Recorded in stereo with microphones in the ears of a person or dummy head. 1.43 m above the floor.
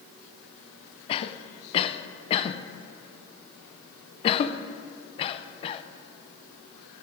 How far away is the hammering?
I don't hear hammering.